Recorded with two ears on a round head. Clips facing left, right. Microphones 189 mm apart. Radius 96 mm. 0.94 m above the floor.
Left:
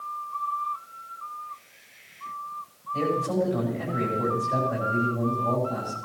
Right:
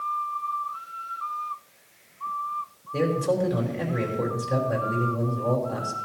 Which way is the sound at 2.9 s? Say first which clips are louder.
Right 2 dB; 80° right.